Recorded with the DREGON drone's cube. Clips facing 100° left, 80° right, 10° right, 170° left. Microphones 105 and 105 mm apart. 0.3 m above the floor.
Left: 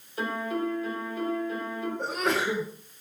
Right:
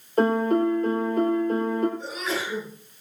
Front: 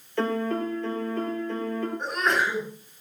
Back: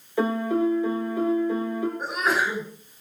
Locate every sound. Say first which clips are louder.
0.2 s a piano: right 10 dB, back 3 dB; 115° right, 3 m
2.0 s a sneeze: left 3 dB, front 2 dB; 85° left, 5 m